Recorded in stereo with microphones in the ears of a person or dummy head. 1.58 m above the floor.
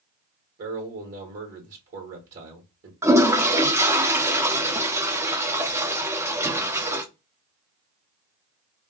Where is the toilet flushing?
10° right (ahead or behind), 0.5 m.